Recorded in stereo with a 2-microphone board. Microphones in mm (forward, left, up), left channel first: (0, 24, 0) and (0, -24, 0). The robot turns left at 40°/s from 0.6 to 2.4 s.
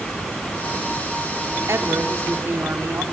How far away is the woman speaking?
About 1.4 m.